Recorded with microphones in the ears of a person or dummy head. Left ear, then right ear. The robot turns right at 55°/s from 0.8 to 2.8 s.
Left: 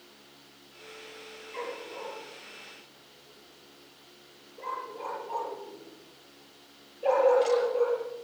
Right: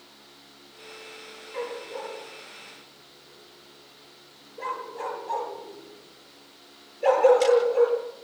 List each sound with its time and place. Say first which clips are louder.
1.5 s a dog barking: right 4 dB; 15° left (ahead or behind), 9 m; by 8.2 s 55° right (ahead or behind), 9 m